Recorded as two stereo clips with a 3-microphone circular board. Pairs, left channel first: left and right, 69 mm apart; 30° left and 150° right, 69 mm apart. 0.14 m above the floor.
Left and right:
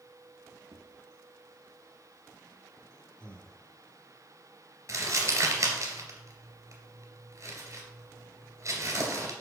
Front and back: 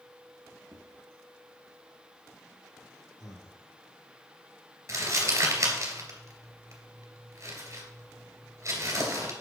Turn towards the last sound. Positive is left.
turn(degrees=-115)